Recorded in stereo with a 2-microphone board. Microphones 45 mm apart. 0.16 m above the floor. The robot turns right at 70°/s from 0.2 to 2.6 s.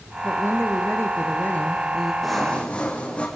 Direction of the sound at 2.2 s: 5° right (ahead or behind).